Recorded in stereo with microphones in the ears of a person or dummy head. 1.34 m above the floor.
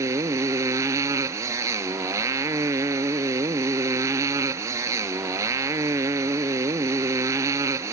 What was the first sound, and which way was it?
A motorcycle, 20° right (ahead or behind).